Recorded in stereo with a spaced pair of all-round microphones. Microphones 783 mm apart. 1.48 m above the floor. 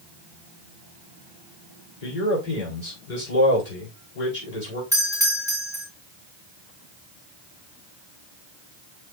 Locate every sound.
2.0 s a man speaking: 60° left (ahead or behind), 4.5 m
4.9 s a doorbell: 5° right (ahead or behind), 2.5 m